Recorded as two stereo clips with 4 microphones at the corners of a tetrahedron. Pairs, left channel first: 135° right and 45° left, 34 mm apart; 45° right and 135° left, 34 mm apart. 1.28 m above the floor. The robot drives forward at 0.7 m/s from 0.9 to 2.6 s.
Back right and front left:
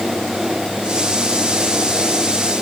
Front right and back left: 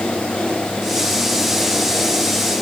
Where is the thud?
No thud in this recording.